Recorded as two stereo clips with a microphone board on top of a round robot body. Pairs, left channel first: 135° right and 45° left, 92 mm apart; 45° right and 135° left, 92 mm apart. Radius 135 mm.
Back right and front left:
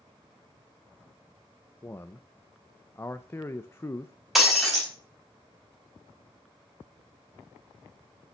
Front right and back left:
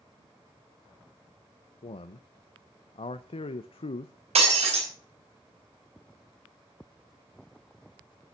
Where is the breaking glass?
135° left, 4 m.